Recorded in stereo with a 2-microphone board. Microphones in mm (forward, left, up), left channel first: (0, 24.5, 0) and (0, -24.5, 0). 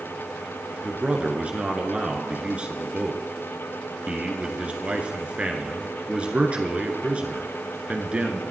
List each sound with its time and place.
0.8 s a man speaking: 25° right (ahead or behind), 1.5 m